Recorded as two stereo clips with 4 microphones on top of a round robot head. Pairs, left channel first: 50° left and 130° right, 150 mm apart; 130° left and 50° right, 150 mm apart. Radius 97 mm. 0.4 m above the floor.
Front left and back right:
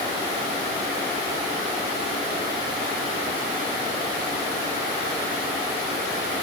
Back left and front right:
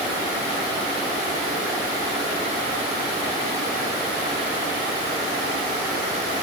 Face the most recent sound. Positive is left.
No sound to turn to.